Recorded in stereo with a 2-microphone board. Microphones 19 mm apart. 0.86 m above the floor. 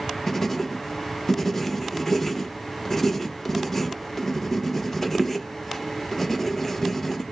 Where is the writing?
15° left (ahead or behind), 0.8 m.